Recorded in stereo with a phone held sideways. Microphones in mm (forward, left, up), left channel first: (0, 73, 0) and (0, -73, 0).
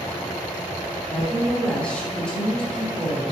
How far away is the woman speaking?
About 3 m.